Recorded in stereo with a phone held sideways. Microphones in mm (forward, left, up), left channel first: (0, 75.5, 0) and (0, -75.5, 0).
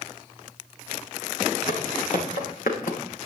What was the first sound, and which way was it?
Footsteps, 70° left (ahead or behind).